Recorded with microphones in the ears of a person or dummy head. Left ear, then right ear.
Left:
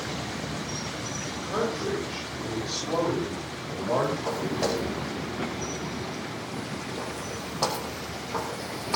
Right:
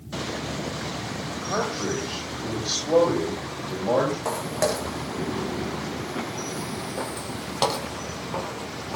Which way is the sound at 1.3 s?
35° right (ahead or behind).